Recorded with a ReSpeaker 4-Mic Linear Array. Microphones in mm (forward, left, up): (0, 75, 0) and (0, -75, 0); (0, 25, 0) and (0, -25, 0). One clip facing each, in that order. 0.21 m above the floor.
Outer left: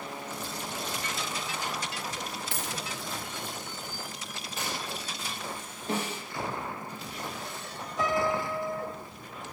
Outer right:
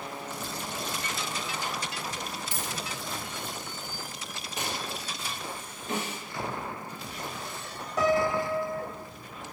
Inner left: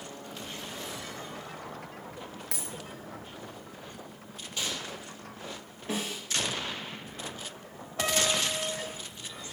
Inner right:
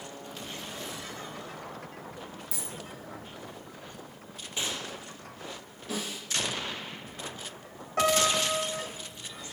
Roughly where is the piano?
Right.